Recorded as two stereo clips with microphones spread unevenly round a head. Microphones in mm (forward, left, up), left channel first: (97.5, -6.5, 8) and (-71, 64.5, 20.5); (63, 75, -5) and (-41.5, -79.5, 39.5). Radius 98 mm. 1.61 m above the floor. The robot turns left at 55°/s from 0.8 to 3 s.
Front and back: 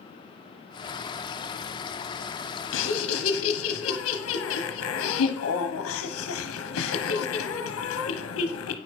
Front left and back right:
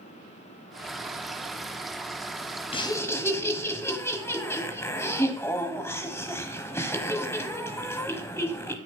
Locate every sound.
2.7 s laughter: 10° right, 1.1 m; by 8.8 s 25° right, 1.1 m